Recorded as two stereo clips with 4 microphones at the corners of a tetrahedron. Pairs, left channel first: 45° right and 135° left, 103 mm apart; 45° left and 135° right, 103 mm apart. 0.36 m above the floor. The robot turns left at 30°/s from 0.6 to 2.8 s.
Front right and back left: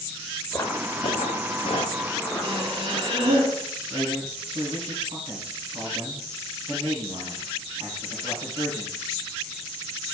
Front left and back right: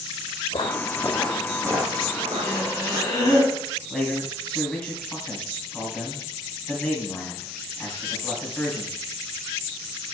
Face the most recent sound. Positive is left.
turn(degrees=125)